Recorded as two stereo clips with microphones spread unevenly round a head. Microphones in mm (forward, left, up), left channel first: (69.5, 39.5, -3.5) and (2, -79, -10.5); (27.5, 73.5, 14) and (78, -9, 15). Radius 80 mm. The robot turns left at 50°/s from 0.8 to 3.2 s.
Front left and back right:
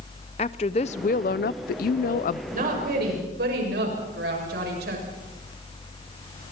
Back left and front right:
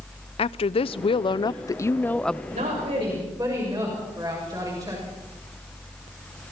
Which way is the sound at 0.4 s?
115° left.